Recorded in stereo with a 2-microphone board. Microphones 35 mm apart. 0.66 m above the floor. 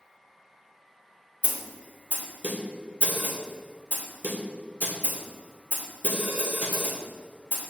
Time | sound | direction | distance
1.4 | a snare drum | 50° right (ahead or behind) | 1.7 m